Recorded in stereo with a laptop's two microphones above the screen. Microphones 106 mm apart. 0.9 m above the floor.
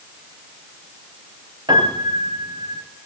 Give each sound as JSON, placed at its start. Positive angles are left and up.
{"t": 1.7, "sound": "a piano", "side_deg": -45, "distance_m": 4.0}